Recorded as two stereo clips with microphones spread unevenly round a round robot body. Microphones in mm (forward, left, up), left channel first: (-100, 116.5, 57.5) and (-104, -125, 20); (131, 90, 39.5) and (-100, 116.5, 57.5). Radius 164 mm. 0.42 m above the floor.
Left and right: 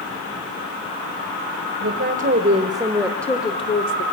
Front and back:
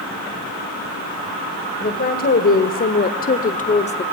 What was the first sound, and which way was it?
A woman speaking, 55° right.